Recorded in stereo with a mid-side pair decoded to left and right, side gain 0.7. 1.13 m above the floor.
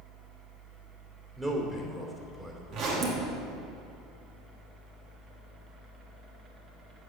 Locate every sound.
0.0 s a fan: 35° right, 1.9 m
1.4 s a man speaking: 15° right, 3 m
2.7 s a zipper: 55° right, 2 m